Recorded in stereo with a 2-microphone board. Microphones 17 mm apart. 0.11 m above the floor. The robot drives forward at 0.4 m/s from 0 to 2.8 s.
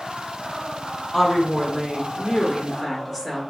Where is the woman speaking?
20° left (ahead or behind), 1.7 m; by 3.4 s 15° left (ahead or behind), 1.9 m.